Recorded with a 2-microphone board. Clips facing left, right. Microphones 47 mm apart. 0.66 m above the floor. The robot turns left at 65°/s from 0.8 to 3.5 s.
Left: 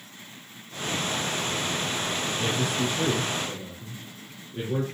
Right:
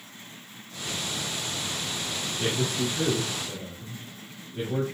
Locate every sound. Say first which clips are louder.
2.4 s a man speaking: right 1 dB; 45° right (ahead or behind), 3 m; by 4.8 s 25° left (ahead or behind), 3 m